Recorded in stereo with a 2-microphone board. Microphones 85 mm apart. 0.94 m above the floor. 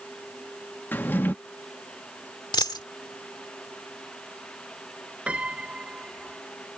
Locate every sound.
0.9 s a drawer: 20° left (ahead or behind)
2.5 s a dropped coin: 50° left (ahead or behind)
5.3 s a piano: 15° right (ahead or behind)